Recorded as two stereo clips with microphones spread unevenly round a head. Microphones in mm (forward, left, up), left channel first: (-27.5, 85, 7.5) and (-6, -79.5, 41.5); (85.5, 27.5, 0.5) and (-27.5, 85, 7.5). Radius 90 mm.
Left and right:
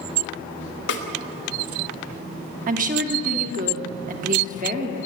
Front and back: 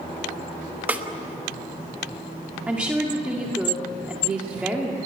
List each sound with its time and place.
0.9 s a snare drum: 75° left, 1.4 m
2.7 s a woman speaking: 125° right, 2 m